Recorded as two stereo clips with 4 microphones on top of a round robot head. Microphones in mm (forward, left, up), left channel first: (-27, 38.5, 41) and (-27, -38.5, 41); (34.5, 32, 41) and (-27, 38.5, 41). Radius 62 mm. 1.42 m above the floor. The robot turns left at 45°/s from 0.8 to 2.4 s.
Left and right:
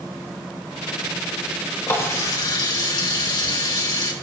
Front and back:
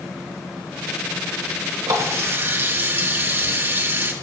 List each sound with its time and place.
1.9 s a running tap: 150° left, 2 m; by 4.1 s 125° left, 2 m